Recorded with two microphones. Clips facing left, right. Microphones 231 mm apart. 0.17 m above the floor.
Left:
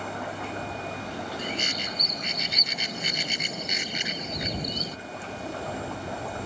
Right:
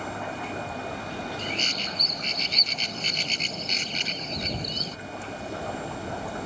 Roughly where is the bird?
Centre.